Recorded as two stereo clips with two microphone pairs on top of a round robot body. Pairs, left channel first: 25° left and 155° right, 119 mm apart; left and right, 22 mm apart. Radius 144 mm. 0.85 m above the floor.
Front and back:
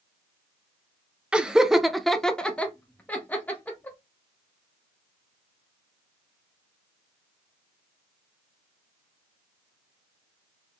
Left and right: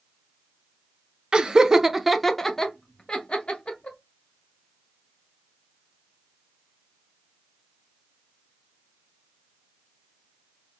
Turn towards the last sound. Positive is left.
turn(degrees=95)